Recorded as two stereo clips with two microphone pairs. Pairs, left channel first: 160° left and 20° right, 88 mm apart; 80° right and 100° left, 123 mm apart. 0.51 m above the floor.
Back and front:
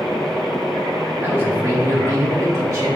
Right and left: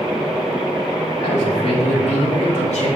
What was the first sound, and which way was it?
A man speaking, 85° right.